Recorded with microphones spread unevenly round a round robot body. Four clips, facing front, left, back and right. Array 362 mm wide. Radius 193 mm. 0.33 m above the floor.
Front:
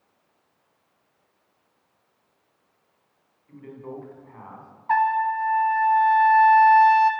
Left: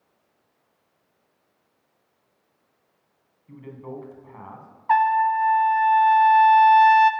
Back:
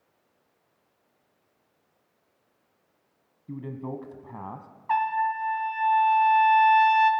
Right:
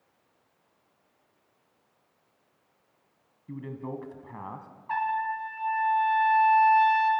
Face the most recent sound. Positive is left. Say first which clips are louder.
# left 10 dB, front 4 dB
turn(degrees=85)